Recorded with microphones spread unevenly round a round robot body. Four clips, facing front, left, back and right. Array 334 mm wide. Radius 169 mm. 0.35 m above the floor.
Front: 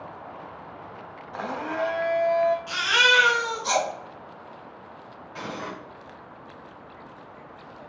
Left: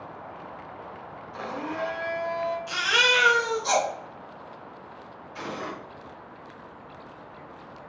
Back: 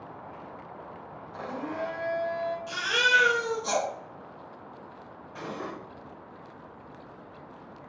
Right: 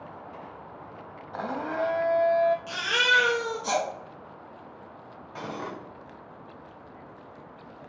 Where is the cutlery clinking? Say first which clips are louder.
Left 1 dB, front 2 dB; 75° right, 1.7 m.